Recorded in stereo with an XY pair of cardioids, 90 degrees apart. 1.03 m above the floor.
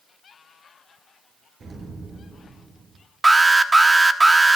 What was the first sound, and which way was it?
An explosion, 45° right.